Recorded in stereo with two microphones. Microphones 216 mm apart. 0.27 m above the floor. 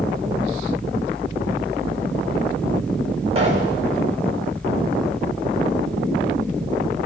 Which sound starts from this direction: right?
A pop, at 3.4 s.